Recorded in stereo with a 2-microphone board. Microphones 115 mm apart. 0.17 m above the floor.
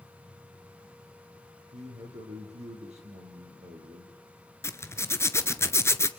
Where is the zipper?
25° left (ahead or behind), 1.0 m.